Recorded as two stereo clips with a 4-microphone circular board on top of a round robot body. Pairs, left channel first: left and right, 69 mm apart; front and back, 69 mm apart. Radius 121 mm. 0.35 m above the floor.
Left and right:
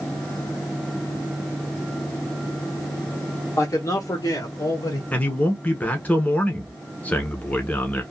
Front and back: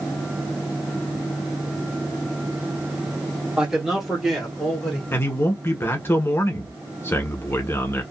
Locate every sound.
3.6 s a man speaking: 105° left, 1.1 m; by 5.0 s 75° left, 1.6 m
5.1 s a man speaking: 30° left, 1.1 m